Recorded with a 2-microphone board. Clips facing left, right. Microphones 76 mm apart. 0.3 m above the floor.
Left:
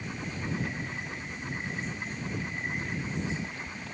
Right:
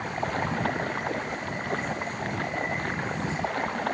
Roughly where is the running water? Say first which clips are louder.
Right 8 dB; right.